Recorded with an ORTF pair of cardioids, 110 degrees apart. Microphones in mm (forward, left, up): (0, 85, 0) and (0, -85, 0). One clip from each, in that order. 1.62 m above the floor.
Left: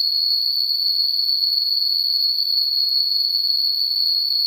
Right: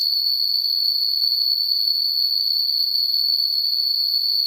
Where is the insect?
15° left, 1.5 m.